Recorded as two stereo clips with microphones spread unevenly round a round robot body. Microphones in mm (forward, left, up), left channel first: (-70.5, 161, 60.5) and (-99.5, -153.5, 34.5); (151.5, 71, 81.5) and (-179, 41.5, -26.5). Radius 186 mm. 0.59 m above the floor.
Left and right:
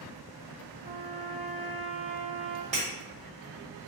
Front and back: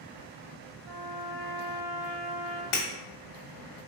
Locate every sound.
0.8 s a trumpet: 160° right, 0.9 m
2.7 s breaking glass: 25° right, 0.9 m